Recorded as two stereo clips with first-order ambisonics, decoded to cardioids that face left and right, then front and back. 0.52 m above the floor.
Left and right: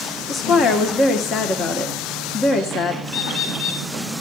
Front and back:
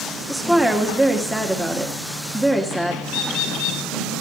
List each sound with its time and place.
0.3 s a woman speaking: 90° left, 1.1 m
3.1 s a bird: 25° left, 4.5 m